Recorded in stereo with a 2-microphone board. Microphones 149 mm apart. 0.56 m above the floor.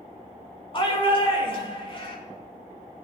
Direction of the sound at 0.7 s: 40° left (ahead or behind).